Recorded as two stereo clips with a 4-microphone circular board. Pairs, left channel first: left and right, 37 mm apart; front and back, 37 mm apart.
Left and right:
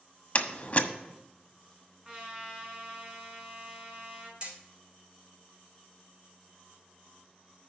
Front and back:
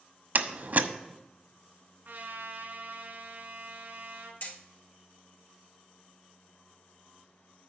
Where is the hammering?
25° right, 3 m.